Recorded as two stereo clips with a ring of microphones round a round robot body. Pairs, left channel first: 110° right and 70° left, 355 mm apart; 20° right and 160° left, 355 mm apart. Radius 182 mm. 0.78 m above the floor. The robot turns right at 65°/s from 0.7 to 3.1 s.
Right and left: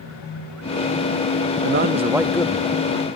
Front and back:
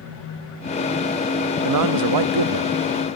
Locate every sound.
1.6 s a man speaking: 120° left; by 2.7 s 170° right